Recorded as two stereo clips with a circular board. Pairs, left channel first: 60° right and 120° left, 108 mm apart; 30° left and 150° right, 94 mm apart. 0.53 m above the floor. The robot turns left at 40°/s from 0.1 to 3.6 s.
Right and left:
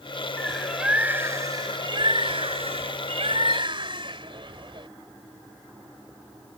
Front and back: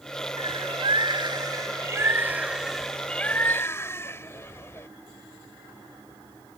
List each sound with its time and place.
0.4 s a bird: 140° right; by 4.9 s 90° left